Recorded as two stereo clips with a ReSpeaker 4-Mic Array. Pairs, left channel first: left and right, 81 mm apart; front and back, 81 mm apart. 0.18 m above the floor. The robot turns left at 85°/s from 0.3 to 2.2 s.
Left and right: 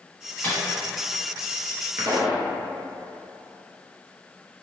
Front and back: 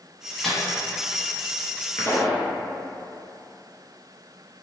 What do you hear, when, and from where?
0.4 s a microwave: 85° left, 0.9 m; by 0.6 s 70° left, 0.9 m
2.0 s a pop: 45° right, 0.6 m; by 2.5 s 60° right, 0.6 m